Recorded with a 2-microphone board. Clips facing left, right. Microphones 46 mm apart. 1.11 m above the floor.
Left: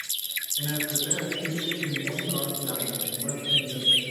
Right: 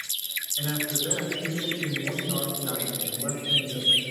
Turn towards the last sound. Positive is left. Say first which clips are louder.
# right 1 dB
turn(degrees=-80)